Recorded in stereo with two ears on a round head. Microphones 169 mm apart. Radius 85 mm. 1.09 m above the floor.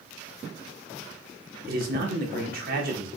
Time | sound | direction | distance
1.7 | a man speaking | 50° right (ahead or behind) | 1.0 m